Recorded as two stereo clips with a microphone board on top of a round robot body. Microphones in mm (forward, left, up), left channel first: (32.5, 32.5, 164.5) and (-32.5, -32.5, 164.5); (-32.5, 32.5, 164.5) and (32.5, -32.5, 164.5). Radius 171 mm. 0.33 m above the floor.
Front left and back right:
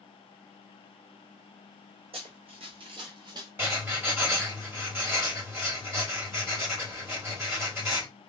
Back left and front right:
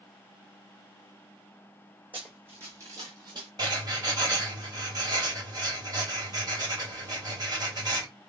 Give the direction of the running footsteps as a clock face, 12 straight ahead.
4 o'clock.